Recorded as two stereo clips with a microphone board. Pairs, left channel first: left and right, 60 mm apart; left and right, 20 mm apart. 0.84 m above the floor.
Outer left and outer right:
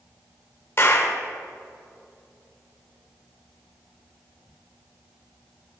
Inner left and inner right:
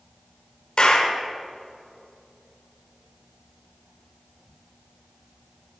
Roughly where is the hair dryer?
No hair dryer in this recording.